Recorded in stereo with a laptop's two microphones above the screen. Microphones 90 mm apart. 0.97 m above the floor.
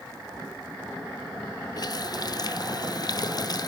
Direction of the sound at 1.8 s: 50° left (ahead or behind).